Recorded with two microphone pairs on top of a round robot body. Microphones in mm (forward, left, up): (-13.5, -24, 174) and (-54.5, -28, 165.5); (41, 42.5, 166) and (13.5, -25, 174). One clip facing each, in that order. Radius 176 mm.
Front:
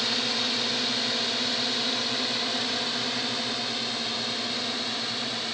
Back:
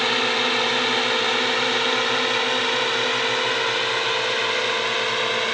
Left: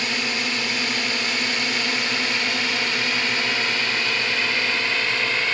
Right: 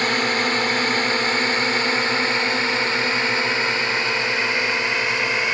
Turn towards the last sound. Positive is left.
turn(degrees=170)